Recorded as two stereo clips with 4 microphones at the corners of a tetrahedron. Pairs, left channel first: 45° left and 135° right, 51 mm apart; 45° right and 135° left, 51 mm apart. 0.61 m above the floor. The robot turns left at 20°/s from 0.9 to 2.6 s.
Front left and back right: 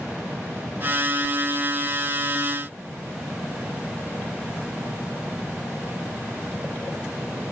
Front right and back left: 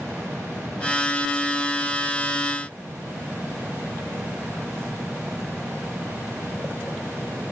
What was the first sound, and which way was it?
Only background noise.